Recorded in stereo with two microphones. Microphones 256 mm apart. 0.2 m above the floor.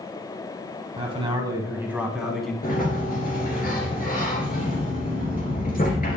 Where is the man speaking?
25° right (ahead or behind), 1.5 m; by 2.5 s centre (ahead or behind), 1.9 m.